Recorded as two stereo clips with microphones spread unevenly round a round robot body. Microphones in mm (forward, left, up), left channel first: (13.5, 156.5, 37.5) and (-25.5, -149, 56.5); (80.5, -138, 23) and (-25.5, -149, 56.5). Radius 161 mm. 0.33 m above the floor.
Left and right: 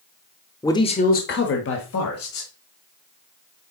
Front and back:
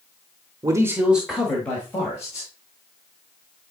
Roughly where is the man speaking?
Behind left.